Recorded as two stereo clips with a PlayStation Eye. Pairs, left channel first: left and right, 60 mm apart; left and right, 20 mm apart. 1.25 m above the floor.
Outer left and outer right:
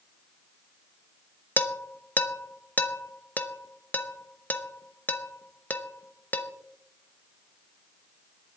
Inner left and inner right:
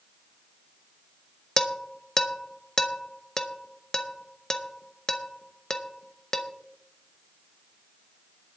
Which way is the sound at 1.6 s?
30° left (ahead or behind).